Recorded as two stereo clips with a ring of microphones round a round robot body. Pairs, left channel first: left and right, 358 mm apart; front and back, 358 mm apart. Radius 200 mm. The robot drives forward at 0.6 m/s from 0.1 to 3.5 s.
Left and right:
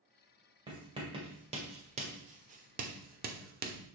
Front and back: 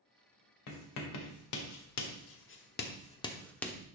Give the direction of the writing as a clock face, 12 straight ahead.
12 o'clock.